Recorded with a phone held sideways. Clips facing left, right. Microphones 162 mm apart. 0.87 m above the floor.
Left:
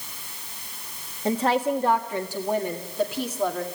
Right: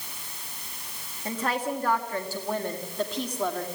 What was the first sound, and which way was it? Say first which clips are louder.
A woman speaking: left 7 dB; 30° left (ahead or behind).